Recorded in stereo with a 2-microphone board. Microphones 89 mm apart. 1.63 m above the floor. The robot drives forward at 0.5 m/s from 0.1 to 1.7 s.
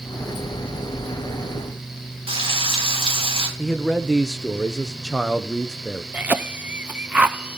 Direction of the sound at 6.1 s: 15° right (ahead or behind).